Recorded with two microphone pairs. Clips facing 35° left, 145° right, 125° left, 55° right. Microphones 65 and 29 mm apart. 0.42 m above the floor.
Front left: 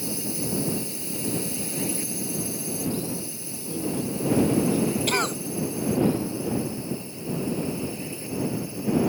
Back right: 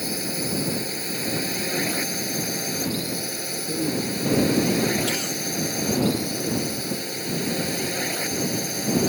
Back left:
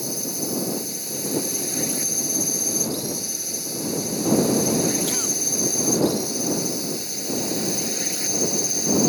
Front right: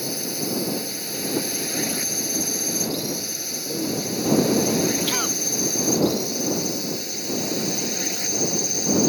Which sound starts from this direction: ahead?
A cough, at 5.1 s.